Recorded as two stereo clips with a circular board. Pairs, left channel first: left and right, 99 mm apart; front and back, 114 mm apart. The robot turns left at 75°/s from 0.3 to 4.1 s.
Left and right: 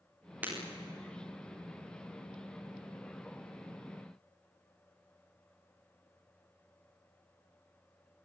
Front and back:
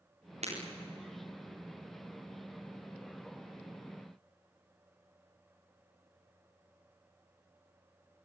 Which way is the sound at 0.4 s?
165° right.